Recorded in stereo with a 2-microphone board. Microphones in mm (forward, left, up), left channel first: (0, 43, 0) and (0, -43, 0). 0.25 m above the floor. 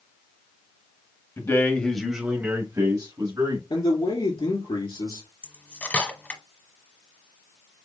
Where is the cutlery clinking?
20° left (ahead or behind), 1.1 m.